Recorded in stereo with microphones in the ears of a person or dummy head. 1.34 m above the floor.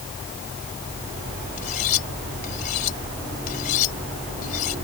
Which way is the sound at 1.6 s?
50° left (ahead or behind).